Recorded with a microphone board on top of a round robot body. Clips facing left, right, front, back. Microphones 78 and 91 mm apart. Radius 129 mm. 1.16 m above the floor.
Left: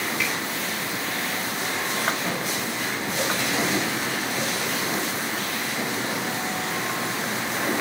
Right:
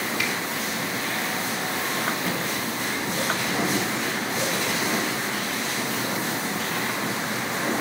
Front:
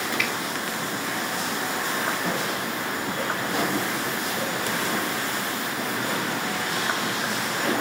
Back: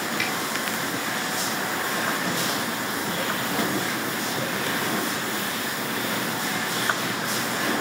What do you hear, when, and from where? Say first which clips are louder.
0.2 s a finger snap: left 1 dB, front 1 dB; 120° right, 2.5 m